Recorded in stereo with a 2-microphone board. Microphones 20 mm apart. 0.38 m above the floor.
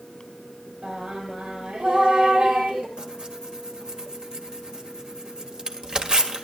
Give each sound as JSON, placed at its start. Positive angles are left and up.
{"t": 0.8, "sound": "singing", "side_deg": -85, "distance_m": 4.0}
{"t": 3.0, "sound": "tearing paper", "side_deg": -45, "distance_m": 1.7}